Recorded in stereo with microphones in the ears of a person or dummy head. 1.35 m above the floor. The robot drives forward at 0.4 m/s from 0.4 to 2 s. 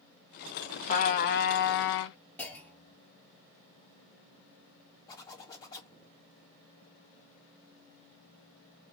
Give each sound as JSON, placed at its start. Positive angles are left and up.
{"t": 0.9, "sound": "a trumpet", "side_deg": 50, "distance_m": 0.8}
{"t": 2.4, "sound": "a clunk", "side_deg": 10, "distance_m": 0.7}
{"t": 5.1, "sound": "a zipper", "side_deg": 20, "distance_m": 1.5}